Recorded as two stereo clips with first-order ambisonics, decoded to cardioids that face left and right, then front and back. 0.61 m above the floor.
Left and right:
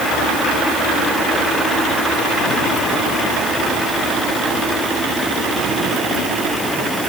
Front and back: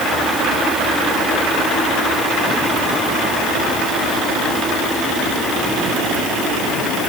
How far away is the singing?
I don't hear singing.